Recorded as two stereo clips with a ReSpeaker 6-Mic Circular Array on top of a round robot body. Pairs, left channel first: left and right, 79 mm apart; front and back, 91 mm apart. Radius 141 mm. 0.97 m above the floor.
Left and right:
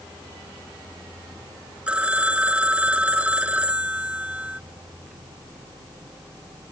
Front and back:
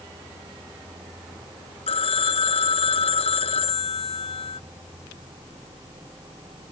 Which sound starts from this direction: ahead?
A phone ringing, at 1.9 s.